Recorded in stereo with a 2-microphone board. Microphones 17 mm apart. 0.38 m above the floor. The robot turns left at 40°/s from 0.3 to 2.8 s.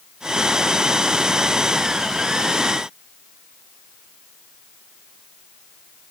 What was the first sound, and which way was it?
Only background noise.